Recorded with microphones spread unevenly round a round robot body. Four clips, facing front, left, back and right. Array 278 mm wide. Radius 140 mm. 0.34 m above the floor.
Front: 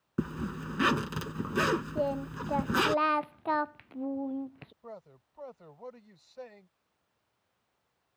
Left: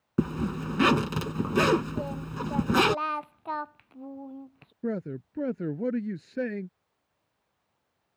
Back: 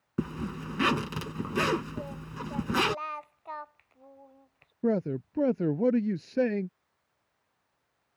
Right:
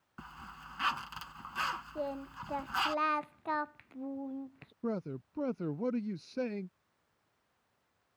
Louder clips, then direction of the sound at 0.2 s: Left 21 dB, back 1 dB; 95° left.